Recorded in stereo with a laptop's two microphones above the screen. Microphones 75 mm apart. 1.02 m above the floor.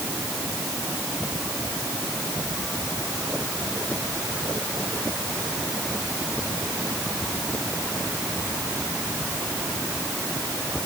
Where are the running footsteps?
I don't hear running footsteps.